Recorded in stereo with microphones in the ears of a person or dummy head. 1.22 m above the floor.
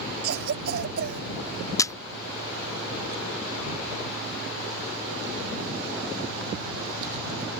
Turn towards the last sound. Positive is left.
turn(degrees=15)  # may be behind; listen again after turning